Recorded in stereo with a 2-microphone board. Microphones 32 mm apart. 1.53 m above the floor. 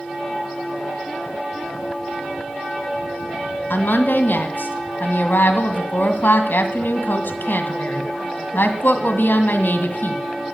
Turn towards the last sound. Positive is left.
turn(degrees=85)